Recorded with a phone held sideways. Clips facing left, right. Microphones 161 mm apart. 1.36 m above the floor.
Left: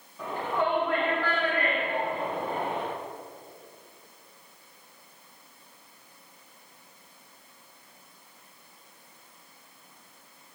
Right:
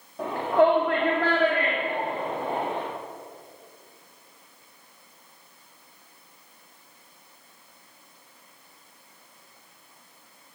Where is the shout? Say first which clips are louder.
Right 8 dB; 65° right (ahead or behind), 2.0 m; by 2.8 s 85° right, 3 m.